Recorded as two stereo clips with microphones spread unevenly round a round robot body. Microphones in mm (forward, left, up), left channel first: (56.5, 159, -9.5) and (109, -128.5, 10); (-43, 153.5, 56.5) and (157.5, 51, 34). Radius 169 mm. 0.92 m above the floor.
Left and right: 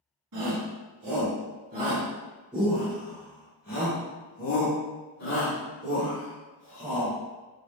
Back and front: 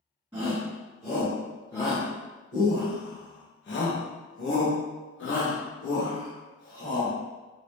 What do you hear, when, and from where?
0.3 s a shout: 100° right, 1.7 m; by 7.2 s 120° left, 3 m